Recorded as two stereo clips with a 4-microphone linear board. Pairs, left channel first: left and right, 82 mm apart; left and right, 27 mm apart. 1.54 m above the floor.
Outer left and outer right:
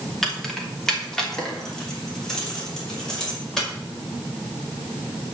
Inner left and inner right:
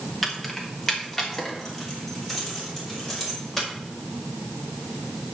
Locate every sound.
0.2 s keys jangling: 5° left (ahead or behind), 2.5 m